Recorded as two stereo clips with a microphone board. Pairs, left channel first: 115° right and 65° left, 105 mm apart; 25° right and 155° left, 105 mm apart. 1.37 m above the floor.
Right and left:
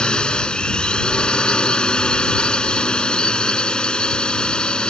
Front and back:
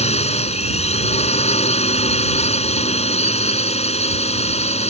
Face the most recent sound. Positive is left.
turn(degrees=-30)